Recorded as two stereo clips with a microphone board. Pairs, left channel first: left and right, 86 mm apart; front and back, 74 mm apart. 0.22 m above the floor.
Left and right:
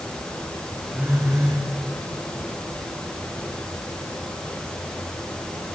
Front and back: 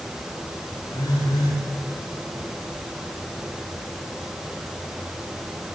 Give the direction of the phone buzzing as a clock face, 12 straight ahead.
12 o'clock.